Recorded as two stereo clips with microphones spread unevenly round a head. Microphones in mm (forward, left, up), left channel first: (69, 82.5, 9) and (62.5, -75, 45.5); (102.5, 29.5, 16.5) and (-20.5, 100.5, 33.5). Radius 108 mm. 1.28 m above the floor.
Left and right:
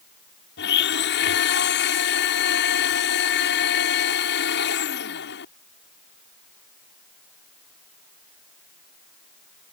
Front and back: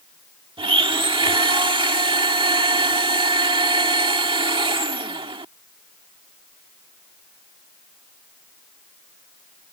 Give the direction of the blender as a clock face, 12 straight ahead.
9 o'clock.